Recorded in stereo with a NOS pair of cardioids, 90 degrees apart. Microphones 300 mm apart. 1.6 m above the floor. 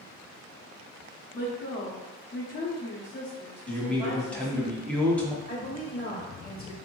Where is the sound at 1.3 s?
40° left, 0.9 m.